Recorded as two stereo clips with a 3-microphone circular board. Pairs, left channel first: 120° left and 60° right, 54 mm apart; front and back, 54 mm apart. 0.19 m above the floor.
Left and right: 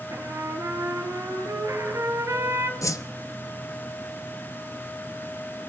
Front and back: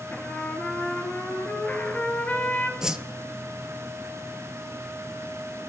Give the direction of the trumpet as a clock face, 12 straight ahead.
2 o'clock.